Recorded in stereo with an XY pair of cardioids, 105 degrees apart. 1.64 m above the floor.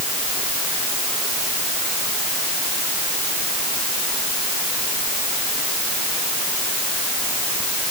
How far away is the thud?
I don't hear a thud.